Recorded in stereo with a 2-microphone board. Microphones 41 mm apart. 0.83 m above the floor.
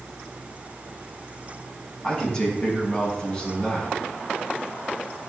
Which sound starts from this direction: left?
A man speaking, at 2.0 s.